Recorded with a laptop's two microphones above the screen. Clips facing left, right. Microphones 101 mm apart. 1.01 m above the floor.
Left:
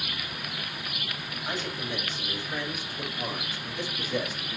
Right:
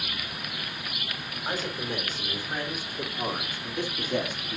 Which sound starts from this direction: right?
A man speaking, at 1.4 s.